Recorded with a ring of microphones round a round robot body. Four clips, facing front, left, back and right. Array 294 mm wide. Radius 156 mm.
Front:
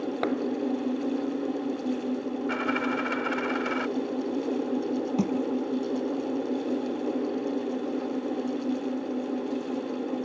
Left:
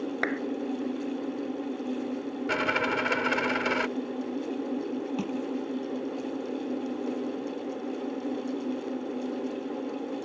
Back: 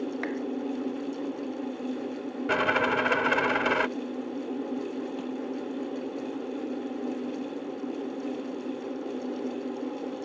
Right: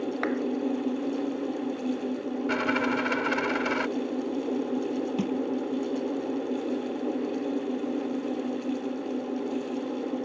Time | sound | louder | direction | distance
0.2 | a clap | right 2 dB, front 5 dB | 25° left | ?
2.5 | a dropped coin | right 1 dB, back 5 dB | 165° left | ?
5.2 | crushing | right 3 dB, front 7 dB | 15° right | ?